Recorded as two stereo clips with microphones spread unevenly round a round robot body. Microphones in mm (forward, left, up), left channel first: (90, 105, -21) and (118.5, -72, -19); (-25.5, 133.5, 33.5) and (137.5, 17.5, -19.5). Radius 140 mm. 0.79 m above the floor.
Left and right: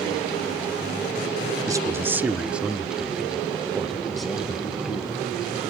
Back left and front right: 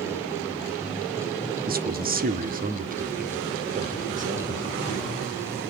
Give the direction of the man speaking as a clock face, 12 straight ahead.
12 o'clock.